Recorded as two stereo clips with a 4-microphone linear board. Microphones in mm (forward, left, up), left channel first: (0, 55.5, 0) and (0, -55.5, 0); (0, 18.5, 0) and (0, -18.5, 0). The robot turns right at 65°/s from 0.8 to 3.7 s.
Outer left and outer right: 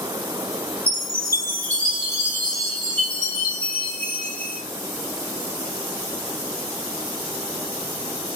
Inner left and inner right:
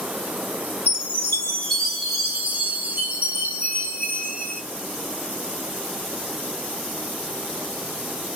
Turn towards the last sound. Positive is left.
turn(degrees=-70)